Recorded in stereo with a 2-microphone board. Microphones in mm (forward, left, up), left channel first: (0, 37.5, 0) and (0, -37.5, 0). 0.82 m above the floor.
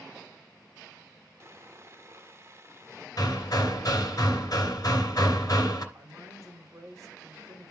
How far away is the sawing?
About 1.5 m.